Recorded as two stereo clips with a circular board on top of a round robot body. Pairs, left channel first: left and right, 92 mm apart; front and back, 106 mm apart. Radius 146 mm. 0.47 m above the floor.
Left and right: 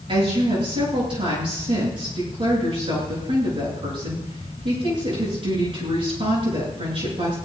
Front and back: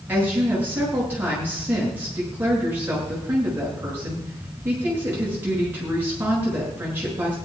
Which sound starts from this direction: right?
A woman speaking, at 0.1 s.